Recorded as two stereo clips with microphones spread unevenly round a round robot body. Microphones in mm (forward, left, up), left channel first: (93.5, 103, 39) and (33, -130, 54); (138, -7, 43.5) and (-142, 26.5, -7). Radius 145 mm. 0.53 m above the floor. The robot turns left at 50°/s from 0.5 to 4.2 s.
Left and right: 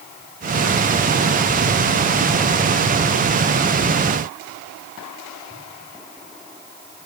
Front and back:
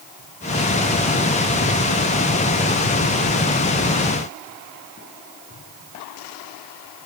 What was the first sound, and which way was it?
Only background noise.